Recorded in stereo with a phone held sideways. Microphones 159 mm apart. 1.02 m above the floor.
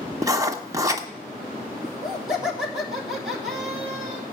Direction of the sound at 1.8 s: 5° right (ahead or behind).